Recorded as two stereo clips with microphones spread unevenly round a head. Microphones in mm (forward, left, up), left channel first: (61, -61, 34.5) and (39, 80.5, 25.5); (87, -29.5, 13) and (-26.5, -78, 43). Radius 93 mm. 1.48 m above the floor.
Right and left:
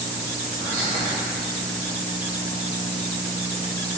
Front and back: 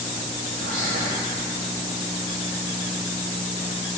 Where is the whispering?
170° left, 0.6 m.